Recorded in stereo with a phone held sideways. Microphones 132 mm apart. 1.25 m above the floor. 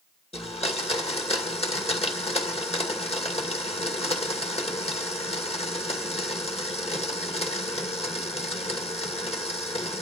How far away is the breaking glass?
No breaking glass in this recording.